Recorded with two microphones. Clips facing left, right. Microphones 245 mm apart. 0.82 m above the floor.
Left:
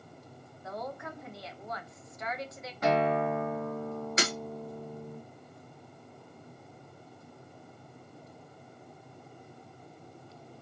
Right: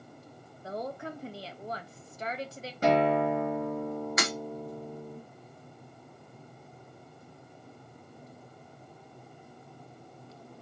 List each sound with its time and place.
0.6 s a woman speaking: 30° right (ahead or behind), 0.5 m
2.8 s a guitar: 30° right (ahead or behind), 1.4 m
4.2 s breaking glass: 30° left (ahead or behind), 0.7 m